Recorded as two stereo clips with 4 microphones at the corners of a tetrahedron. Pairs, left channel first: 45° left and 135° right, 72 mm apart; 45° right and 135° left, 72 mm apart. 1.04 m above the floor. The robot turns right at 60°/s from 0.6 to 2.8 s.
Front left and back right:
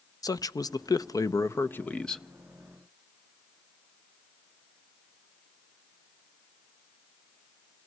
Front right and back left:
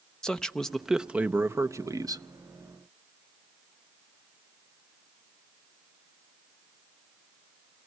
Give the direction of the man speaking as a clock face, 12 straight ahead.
11 o'clock.